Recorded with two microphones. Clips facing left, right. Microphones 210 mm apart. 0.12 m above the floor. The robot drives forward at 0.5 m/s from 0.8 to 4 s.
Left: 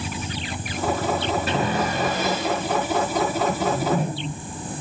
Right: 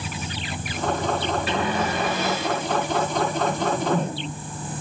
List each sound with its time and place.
1.5 s a cupboard door: 45° left (ahead or behind), 3 m; by 2.6 s 40° left (ahead or behind), 3.5 m
3.5 s a whoosh: 10° left (ahead or behind), 1.1 m